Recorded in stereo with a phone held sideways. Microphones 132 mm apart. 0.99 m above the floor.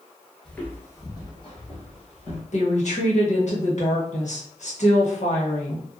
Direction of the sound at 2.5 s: 65° left (ahead or behind).